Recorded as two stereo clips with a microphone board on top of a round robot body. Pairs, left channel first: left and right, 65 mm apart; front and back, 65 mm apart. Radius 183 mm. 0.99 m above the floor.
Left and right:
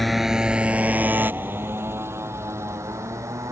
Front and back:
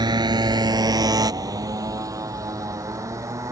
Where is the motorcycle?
Straight behind; by 3.5 s 140° right.